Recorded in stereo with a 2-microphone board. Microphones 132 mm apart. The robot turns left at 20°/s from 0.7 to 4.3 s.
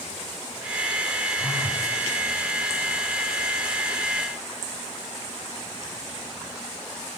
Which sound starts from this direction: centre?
A phone buzzing, at 1.4 s.